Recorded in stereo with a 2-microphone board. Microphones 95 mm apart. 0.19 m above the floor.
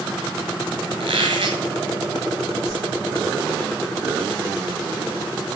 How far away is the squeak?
About 2.5 m.